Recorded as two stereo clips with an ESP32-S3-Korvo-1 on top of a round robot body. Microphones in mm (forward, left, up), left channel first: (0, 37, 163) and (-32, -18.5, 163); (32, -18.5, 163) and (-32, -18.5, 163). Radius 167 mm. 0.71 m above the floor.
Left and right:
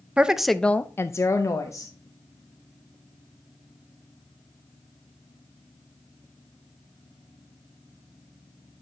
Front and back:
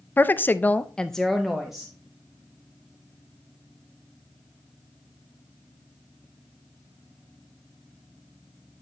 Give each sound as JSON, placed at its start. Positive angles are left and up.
{"t": 0.2, "sound": "a woman speaking", "azimuth_deg": -50, "distance_m": 0.7}